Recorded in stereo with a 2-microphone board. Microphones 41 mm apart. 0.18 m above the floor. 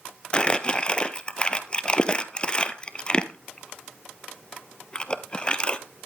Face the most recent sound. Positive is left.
turn(degrees=25)  # may be behind; listen again after turning